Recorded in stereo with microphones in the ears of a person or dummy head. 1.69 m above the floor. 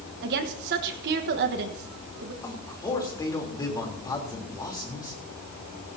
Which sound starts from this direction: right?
A woman speaking, at 0.2 s.